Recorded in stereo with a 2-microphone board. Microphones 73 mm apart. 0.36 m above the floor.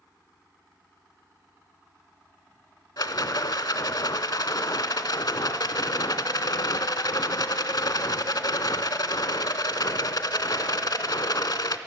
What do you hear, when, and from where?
3.0 s a rattle: 65° left (ahead or behind), 0.6 m